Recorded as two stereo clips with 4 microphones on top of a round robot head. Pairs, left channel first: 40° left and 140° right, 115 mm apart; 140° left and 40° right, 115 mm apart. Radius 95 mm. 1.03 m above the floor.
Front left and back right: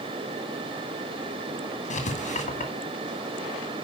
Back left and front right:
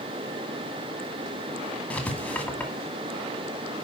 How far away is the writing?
About 2 m.